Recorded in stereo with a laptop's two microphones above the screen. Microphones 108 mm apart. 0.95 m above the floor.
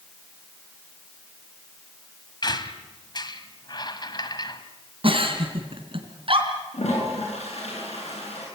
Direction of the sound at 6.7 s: 80° left.